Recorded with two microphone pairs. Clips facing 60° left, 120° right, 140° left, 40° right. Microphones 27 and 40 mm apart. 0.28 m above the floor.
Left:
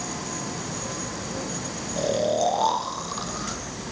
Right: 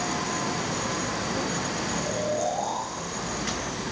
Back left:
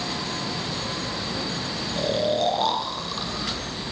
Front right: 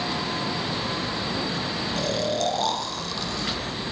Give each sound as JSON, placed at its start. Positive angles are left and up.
{"t": 2.0, "sound": "snoring", "azimuth_deg": 65, "distance_m": 1.1}